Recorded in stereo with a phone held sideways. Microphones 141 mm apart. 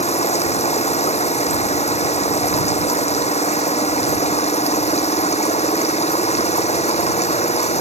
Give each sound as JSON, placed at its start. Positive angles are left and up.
{"t": 0.0, "sound": "running water", "side_deg": 50}